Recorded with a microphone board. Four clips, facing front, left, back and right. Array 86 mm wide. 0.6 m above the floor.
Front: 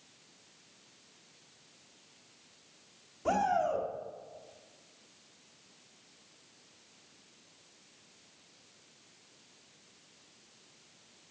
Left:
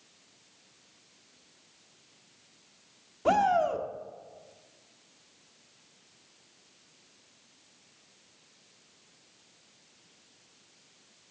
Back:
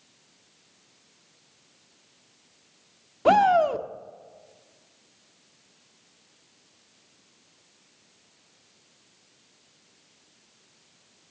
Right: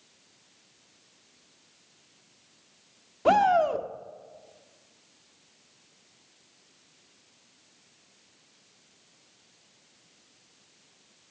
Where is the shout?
155° right, 1.2 m.